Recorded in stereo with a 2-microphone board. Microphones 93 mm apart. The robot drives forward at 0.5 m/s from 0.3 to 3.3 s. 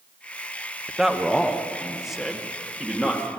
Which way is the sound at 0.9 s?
5° right (ahead or behind).